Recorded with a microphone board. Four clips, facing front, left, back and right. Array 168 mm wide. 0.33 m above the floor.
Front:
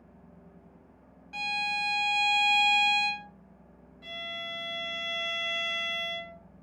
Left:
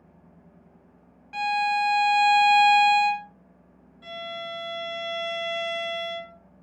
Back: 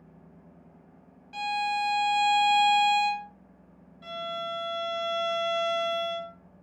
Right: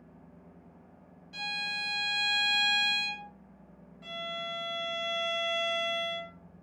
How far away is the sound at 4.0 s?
About 0.8 m.